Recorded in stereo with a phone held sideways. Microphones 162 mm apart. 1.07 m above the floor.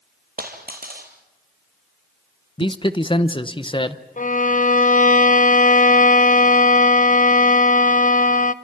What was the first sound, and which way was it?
A dropped coin, 65° right (ahead or behind).